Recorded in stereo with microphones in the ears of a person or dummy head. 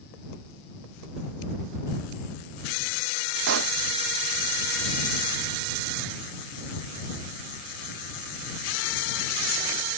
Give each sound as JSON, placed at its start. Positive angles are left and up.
{"t": 3.5, "sound": "a pop", "side_deg": -70}